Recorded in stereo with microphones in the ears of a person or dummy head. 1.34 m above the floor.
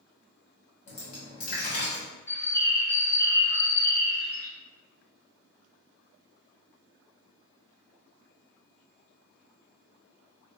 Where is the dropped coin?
40° left (ahead or behind), 1.3 m.